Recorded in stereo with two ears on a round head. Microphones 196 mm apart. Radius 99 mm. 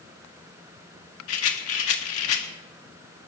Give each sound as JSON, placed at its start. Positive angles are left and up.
{"t": 1.3, "sound": "a rattle", "side_deg": 70, "distance_m": 1.8}